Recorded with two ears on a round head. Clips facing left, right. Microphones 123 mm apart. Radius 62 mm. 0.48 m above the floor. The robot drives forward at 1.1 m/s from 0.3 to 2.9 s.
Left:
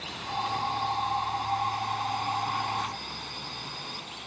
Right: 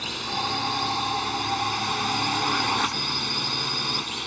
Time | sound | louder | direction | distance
0.0 | a drone | right 2 dB | 65° right (ahead or behind) | ?